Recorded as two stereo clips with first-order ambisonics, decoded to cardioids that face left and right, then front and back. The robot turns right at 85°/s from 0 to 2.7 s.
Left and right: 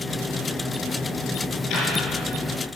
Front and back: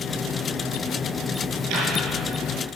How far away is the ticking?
About 5.5 m.